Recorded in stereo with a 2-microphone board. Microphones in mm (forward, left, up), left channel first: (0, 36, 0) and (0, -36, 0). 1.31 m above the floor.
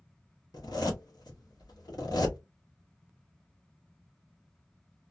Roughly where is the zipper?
Left.